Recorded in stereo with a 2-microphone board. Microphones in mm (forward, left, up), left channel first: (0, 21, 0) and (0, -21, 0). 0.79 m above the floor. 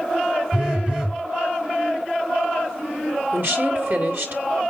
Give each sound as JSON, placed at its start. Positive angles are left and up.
{"t": 0.5, "sound": "a phone buzzing", "side_deg": -25, "distance_m": 1.6}
{"t": 3.3, "sound": "a woman speaking", "side_deg": -55, "distance_m": 3.0}